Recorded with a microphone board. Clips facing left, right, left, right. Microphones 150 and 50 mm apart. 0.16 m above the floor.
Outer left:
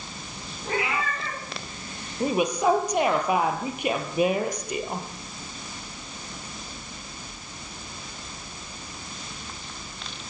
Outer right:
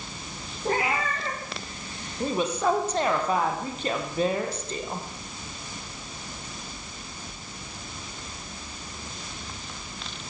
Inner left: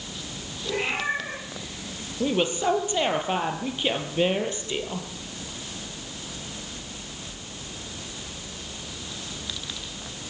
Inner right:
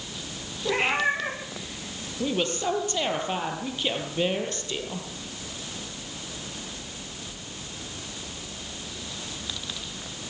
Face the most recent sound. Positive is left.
turn(degrees=15)  # may be behind; listen again after turning